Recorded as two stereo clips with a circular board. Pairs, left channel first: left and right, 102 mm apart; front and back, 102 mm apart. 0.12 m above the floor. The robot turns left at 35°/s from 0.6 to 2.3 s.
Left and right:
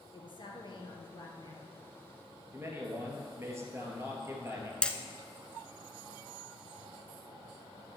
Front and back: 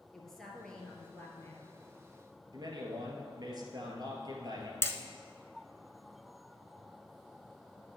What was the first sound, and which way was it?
A woman speaking, 85° left.